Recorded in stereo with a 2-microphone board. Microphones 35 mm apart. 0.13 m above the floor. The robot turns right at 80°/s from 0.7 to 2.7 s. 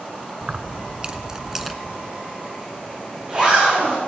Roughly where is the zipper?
Right.